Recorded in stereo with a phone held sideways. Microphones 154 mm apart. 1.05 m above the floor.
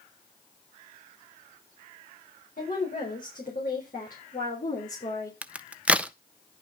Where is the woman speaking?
65° left (ahead or behind), 4.5 m; by 5.3 s 50° left (ahead or behind), 3.5 m.